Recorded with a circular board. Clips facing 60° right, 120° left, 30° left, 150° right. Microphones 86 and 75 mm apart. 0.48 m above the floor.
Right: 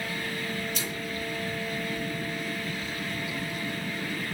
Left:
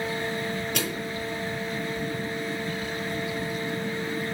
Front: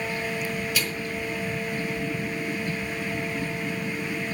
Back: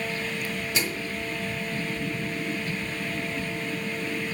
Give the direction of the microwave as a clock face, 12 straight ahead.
7 o'clock.